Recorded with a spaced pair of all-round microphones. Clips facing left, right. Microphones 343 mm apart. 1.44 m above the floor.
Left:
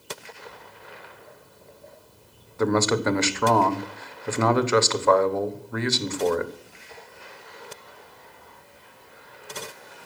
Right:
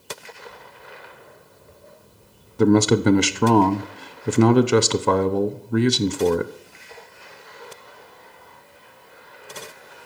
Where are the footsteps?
15° right (ahead or behind), 4.5 m.